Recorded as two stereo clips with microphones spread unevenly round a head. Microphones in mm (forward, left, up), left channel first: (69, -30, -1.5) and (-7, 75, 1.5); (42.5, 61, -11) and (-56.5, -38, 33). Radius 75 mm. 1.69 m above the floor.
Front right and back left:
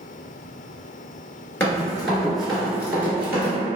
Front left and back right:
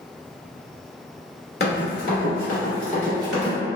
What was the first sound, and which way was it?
Running footsteps, 10° left.